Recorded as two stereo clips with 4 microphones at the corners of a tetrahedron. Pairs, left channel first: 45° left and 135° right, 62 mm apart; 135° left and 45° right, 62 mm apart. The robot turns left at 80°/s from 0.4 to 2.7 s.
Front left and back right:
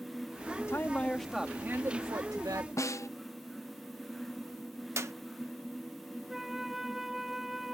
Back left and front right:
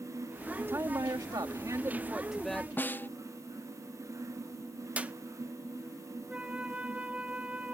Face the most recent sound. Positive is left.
turn(degrees=-60)